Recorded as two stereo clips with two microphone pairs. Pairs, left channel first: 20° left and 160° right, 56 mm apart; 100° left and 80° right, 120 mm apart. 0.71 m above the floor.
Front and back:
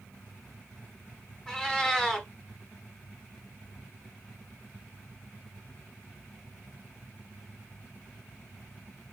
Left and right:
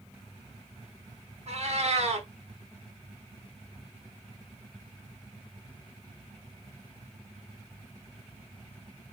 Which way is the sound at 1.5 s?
55° right.